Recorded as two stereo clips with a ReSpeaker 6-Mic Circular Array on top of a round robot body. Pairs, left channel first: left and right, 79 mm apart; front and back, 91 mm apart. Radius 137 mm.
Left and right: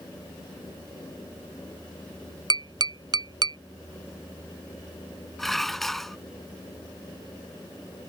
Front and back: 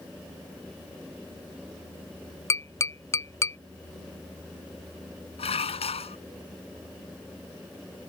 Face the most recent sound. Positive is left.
turn(degrees=5)